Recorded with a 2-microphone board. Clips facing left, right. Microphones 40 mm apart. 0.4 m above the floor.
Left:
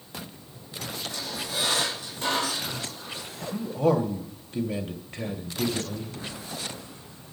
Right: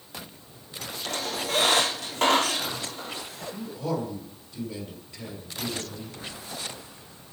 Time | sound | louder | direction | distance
1.1 | a squeak | right 8 dB | 85° right | 4 m
3.5 | a man speaking | left 8 dB | 50° left (ahead or behind) | 1.9 m